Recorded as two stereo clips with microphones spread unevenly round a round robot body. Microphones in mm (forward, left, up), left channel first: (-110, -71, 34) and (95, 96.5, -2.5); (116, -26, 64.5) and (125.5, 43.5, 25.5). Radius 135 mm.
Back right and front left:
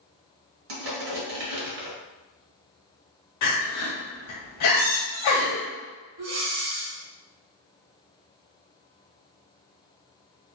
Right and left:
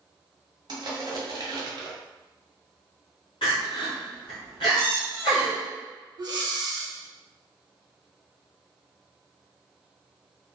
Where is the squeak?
150° left, 1.1 m.